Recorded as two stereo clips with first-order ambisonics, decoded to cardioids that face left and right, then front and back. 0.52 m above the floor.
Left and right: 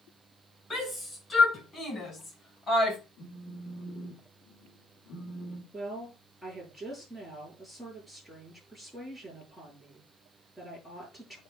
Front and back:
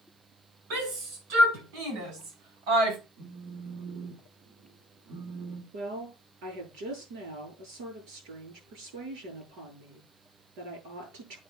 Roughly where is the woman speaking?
Behind.